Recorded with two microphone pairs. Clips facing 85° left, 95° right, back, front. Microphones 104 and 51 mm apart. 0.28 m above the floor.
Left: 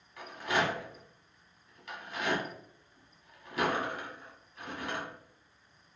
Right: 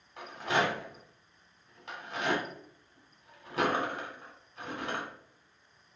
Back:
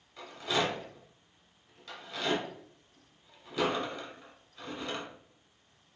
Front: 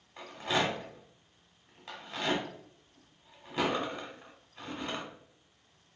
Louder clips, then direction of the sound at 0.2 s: Right 1 dB, front 1 dB; 40° right.